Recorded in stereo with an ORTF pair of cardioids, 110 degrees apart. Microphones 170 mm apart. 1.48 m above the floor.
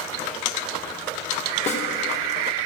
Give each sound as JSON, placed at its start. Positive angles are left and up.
{"t": 1.7, "sound": "a snare drum", "azimuth_deg": 40, "distance_m": 2.5}